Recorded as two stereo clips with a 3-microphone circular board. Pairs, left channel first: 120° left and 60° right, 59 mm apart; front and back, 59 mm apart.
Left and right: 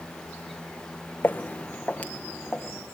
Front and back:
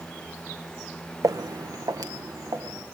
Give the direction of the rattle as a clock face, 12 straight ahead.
I don't hear a rattle.